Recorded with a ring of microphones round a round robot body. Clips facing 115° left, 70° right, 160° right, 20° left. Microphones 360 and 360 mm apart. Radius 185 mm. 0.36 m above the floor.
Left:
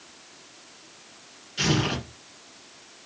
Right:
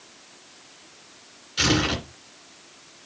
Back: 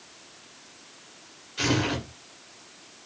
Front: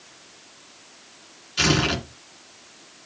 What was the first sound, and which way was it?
Tearing paper, 5° right.